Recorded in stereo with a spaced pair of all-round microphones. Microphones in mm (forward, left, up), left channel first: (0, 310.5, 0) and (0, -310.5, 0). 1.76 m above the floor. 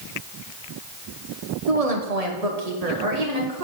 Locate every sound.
1.7 s a woman speaking: 65° right (ahead or behind), 1.2 m; by 3.6 s 80° right, 2.5 m